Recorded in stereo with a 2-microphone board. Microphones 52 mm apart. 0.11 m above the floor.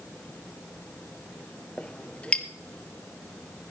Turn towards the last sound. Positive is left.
turn(degrees=25)  # may be behind; listen again after turning